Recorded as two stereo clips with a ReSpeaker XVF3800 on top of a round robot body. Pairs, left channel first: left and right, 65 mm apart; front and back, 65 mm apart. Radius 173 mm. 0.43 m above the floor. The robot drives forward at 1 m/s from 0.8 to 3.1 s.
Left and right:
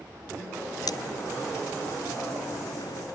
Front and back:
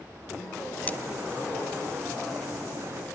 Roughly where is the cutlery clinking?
Left.